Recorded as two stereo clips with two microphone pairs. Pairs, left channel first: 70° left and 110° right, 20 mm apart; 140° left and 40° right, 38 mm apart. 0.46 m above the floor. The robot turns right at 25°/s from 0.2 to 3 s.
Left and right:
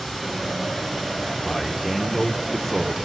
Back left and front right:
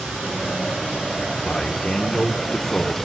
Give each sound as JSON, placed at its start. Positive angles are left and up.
{"t": 0.0, "sound": "running water", "azimuth_deg": -25, "distance_m": 3.5}
{"t": 1.4, "sound": "a man speaking", "azimuth_deg": 95, "distance_m": 0.8}